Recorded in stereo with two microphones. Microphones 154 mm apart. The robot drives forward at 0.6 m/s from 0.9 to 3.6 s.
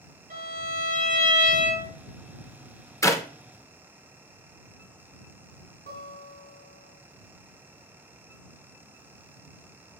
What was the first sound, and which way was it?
A violin, 55° right (ahead or behind).